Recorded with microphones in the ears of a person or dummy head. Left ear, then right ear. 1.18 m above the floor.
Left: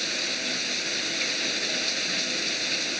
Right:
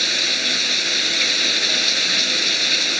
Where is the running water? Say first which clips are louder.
Right 9 dB; 30° right (ahead or behind).